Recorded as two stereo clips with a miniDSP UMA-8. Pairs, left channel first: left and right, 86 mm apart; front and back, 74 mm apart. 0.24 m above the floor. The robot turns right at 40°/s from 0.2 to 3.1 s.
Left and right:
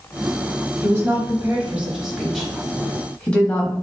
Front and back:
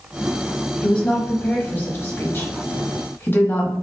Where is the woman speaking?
65° right, 1.0 m; by 3.7 s 30° left, 1.0 m.